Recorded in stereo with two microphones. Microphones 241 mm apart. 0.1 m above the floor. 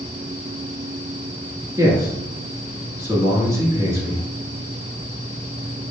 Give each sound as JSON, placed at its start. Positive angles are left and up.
{"t": 1.8, "sound": "a man speaking", "side_deg": -15, "distance_m": 1.3}